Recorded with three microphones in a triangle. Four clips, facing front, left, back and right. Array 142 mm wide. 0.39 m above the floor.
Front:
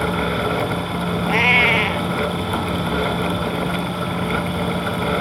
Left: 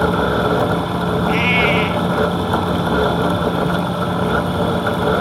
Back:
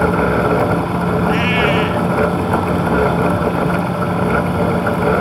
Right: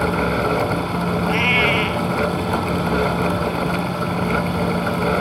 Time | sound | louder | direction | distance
1.3 | a cat meowing | left 3 dB, front 1 dB | straight ahead | ?